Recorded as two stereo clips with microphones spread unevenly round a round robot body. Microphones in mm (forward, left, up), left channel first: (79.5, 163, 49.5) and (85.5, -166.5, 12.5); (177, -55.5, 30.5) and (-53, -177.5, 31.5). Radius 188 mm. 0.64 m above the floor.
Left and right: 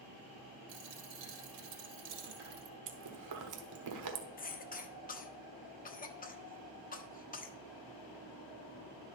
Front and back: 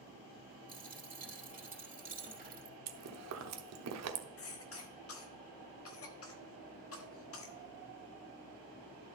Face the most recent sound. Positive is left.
turn(degrees=25)